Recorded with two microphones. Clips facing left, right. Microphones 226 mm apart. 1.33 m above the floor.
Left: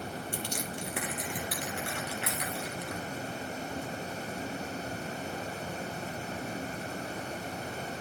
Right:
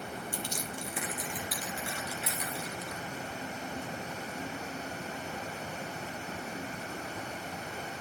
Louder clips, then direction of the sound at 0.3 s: Left 2 dB; 65° left (ahead or behind).